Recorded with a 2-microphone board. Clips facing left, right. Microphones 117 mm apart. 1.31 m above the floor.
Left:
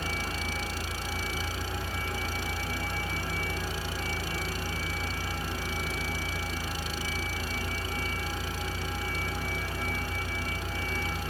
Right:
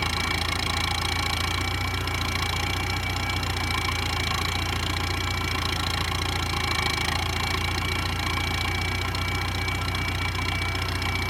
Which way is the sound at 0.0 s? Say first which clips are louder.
Right 5 dB; 80° right.